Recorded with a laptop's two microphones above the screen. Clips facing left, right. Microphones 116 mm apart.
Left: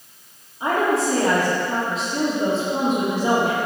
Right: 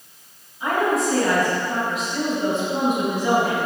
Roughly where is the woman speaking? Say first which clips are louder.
Left 1 dB; left.